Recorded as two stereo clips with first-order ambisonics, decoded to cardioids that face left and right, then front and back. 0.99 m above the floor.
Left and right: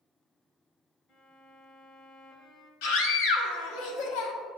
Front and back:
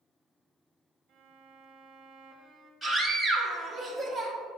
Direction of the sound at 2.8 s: 95° left.